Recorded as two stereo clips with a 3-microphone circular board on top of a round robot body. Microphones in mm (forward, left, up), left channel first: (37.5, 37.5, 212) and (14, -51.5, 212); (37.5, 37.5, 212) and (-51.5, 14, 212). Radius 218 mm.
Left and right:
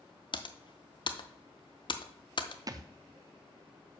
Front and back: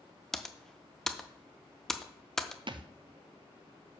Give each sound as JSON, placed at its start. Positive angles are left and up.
{"t": 0.3, "sound": "typing on a keyboard", "azimuth_deg": 100, "distance_m": 0.8}
{"t": 2.7, "sound": "a thud", "azimuth_deg": -145, "distance_m": 0.7}